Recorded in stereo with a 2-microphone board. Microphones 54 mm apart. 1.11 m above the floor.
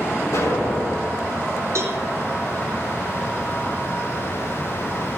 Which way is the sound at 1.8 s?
65° right (ahead or behind).